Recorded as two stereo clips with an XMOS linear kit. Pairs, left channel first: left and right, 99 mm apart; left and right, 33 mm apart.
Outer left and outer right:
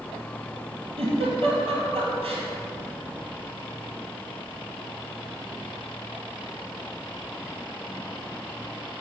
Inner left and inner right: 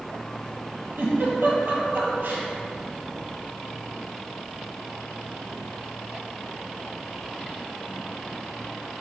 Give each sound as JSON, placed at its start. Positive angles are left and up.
{"t": 1.0, "sound": "a giggle", "side_deg": -70, "distance_m": 1.4}